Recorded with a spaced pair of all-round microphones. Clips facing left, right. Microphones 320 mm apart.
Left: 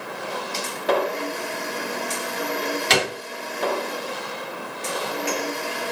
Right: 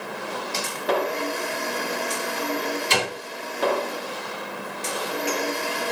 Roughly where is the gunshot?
Left.